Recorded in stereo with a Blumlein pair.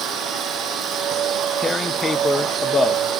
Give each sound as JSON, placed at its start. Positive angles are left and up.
{"t": 0.0, "sound": "a machine running", "azimuth_deg": -25}
{"t": 1.6, "sound": "tearing paper", "azimuth_deg": 15}